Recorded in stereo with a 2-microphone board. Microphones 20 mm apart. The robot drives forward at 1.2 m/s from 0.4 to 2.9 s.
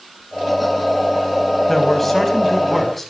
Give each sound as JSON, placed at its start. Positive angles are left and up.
{"t": 1.7, "sound": "a man speaking", "side_deg": 10, "distance_m": 4.0}